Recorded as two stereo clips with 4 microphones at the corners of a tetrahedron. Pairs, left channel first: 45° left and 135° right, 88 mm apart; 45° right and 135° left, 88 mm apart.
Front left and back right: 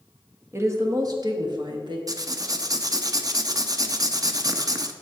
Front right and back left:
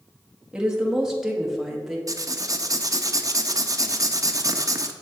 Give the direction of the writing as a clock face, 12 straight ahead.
6 o'clock.